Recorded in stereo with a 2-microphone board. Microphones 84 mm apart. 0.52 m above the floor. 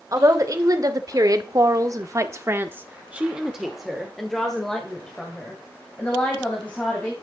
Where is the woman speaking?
40° right (ahead or behind), 1.7 m; by 7.1 s 15° left (ahead or behind), 3 m.